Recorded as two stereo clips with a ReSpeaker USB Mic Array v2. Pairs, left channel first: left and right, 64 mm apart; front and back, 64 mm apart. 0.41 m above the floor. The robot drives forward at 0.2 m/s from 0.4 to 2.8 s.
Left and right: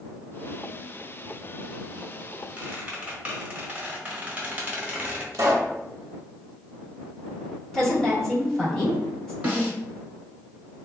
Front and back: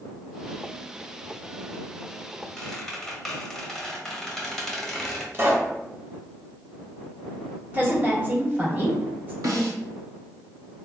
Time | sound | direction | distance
2.6 | a squeak | 75° right | 0.7 m
5.3 | a pop | 130° right | 0.7 m
7.7 | a woman speaking | 165° left | 0.9 m
9.4 | a snare drum | 155° right | 1.0 m